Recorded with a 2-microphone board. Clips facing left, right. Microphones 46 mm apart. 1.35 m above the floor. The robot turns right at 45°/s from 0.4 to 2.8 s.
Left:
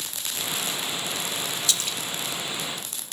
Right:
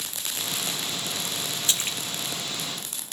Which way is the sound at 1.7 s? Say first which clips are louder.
Right 2 dB; 30° right (ahead or behind).